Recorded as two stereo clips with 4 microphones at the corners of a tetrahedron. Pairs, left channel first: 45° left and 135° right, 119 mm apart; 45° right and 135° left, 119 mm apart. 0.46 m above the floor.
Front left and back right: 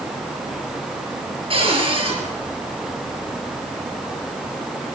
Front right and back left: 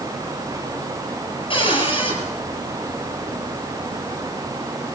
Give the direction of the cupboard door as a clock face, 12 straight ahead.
3 o'clock.